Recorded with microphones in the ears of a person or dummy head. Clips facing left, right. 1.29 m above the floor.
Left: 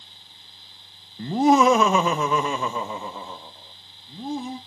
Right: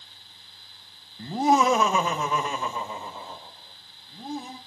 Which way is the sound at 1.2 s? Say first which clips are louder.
Left 4 dB; 55° left (ahead or behind).